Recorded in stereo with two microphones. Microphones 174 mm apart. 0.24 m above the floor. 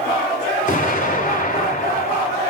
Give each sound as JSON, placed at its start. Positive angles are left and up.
{"t": 0.7, "sound": "an explosion", "side_deg": 50, "distance_m": 1.8}